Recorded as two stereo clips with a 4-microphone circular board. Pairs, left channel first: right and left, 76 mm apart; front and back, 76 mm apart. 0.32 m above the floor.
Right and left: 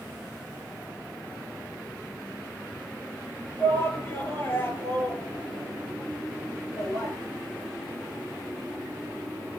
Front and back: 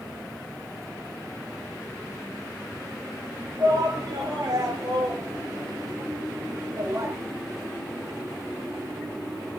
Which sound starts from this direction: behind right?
A shout, at 3.6 s.